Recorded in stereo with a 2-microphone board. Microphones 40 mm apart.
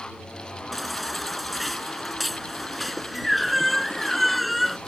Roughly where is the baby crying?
Centre.